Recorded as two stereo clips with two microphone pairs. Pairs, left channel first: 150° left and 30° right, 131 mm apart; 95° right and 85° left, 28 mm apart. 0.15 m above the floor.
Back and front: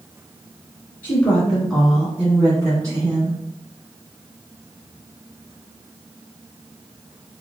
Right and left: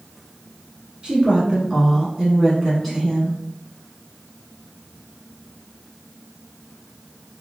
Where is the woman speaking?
95° left, 1.2 m; by 3.4 s 20° right, 1.3 m.